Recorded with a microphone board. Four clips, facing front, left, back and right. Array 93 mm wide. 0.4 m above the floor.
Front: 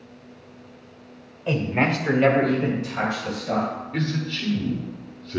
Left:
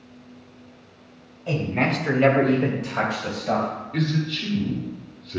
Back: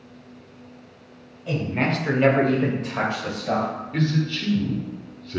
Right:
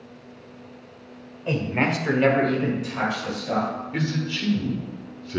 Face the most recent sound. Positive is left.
turn(degrees=-85)